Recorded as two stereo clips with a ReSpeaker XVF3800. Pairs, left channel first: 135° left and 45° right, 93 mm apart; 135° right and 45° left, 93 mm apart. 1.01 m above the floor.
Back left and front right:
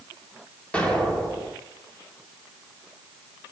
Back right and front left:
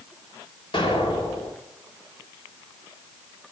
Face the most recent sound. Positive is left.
turn(degrees=-150)